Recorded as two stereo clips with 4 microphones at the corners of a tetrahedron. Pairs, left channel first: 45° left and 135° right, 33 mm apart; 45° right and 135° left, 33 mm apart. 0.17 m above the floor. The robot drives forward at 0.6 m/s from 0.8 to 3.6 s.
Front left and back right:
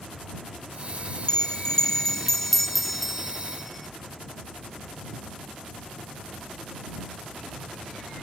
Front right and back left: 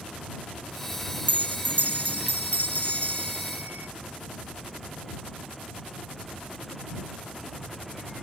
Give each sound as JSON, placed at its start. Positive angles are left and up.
{"t": 1.3, "sound": "a bell", "azimuth_deg": 105}